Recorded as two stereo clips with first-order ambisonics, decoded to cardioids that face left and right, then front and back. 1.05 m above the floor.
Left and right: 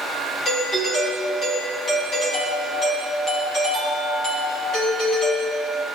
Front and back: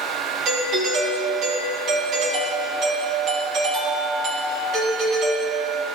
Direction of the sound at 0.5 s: 140° left.